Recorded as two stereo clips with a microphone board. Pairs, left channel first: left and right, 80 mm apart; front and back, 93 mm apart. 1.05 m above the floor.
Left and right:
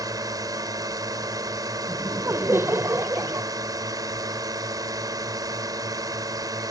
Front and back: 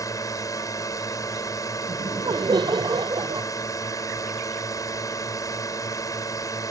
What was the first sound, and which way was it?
A drone, 50° right.